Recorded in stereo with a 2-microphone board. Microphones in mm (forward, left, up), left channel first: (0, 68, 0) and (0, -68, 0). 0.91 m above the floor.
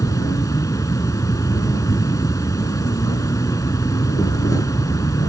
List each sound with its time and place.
0.0 s an insect: 25° left (ahead or behind)